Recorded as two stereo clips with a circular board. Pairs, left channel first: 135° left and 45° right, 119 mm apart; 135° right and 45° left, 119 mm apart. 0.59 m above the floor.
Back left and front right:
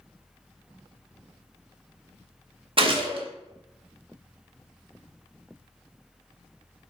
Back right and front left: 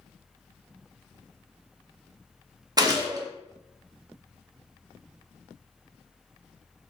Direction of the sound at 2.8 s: 10° right.